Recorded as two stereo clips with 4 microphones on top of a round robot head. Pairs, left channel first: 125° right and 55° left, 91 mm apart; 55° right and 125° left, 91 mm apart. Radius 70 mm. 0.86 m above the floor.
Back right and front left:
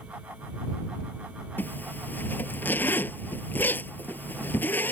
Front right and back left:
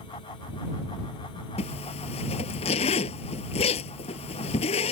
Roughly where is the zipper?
Ahead right.